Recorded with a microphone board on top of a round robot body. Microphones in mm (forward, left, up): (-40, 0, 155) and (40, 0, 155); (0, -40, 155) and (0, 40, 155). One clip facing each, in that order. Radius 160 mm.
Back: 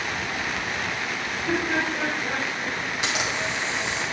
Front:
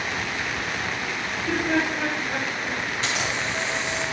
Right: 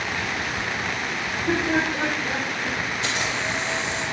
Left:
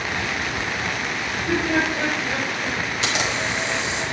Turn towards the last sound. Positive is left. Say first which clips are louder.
# back 1 dB, left 4 dB
turn(degrees=105)